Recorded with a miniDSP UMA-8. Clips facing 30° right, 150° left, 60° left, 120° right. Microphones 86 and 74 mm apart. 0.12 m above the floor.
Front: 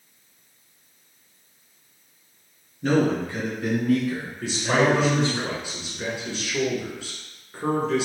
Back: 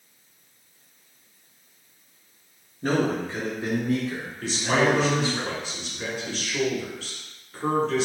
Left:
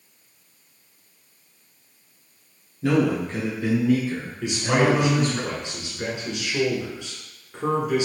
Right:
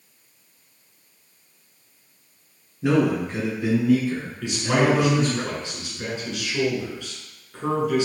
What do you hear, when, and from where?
2.8 s a man speaking: 175° right, 1.4 m; by 5.4 s 45° left, 1.3 m
4.4 s a man speaking: 25° left, 1.1 m